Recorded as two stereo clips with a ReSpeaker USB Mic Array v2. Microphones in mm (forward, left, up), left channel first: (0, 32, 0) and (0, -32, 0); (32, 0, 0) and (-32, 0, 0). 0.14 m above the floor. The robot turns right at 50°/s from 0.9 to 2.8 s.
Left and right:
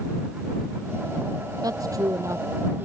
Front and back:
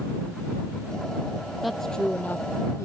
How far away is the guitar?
I don't hear a guitar.